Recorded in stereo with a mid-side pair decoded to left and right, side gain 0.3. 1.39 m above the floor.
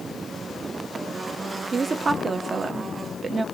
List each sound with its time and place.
1.7 s a woman speaking: 60° right, 0.9 m